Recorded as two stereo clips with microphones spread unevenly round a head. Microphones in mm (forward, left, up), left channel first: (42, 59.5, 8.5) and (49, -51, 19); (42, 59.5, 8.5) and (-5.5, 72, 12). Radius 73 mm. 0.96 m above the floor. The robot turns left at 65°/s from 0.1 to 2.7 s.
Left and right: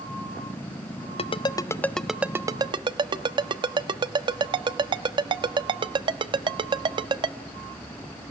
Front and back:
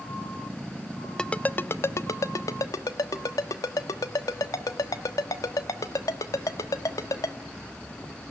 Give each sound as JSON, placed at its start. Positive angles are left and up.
{"t": 1.2, "sound": "a ringtone", "azimuth_deg": 60, "distance_m": 1.1}